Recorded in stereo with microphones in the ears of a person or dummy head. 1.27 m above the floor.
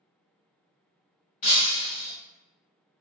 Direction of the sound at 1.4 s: 35° left (ahead or behind).